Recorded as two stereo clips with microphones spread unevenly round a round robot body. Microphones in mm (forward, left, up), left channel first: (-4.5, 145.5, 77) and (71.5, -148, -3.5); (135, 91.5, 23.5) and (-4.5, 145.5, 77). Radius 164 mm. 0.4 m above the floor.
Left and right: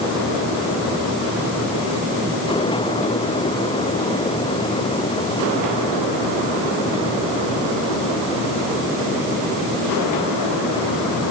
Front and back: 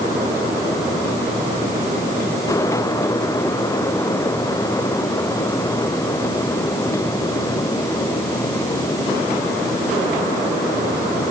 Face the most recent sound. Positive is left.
No sound to turn to.